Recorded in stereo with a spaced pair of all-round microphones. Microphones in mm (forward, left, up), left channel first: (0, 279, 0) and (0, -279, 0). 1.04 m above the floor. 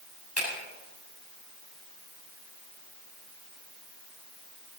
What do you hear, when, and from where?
0.4 s a finger snap: 25° left (ahead or behind), 6.5 m